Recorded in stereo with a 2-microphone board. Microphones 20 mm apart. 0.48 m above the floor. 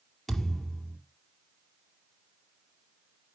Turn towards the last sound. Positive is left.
turn(degrees=5)  # may be behind; listen again after turning